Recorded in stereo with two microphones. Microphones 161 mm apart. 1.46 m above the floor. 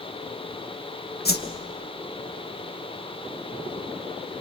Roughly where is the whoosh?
Left.